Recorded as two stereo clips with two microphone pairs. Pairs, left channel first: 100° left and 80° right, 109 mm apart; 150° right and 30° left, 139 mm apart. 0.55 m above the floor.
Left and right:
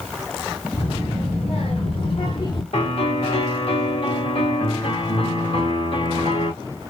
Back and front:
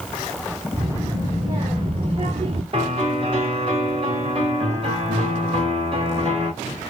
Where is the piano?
75° left, 2 m.